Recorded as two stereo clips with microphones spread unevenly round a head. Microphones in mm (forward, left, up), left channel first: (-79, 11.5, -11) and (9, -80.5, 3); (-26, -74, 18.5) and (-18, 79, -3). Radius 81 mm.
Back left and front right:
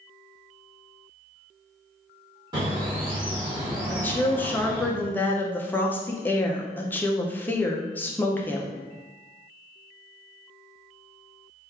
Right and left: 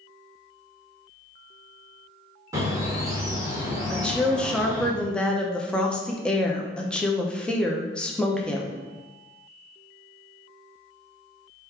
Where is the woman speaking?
175° left, 0.5 m.